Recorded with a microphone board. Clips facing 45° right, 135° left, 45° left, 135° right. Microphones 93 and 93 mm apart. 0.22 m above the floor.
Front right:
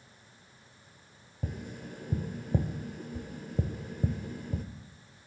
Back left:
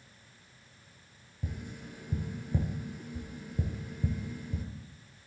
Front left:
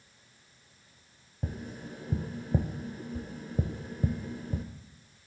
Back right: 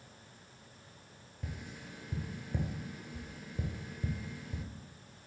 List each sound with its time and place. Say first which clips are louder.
1.4 s tapping: front right 3 dB, front left 7 dB; 5° right, 0.7 m